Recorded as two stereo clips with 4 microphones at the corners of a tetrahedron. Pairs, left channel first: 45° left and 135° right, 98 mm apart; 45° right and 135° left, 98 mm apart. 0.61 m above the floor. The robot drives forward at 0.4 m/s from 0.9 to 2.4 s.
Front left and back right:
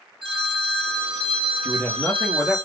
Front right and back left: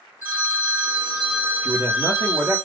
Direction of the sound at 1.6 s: 115° left.